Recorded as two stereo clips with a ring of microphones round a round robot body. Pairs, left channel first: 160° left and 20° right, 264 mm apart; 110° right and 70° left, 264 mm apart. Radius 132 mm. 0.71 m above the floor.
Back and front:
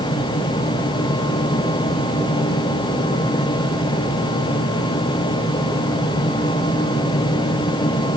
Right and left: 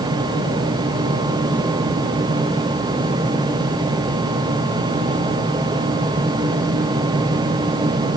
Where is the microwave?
I don't hear a microwave.